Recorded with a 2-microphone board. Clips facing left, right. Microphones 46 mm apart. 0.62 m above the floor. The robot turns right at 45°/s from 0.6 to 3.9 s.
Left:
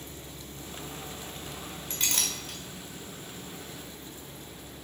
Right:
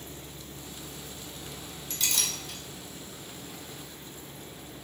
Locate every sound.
1.9 s a clink: 35° left (ahead or behind), 1.1 m; by 2.6 s 65° left (ahead or behind), 1.1 m